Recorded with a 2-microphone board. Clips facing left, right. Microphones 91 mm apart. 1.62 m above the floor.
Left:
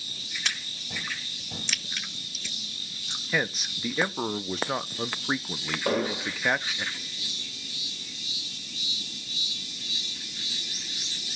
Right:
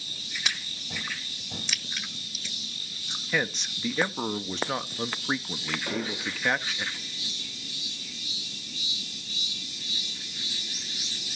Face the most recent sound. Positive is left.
turn(degrees=60)  # may be behind; listen again after turning